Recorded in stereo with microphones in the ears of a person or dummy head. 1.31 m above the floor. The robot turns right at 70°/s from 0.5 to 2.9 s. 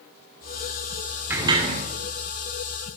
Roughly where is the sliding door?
Behind.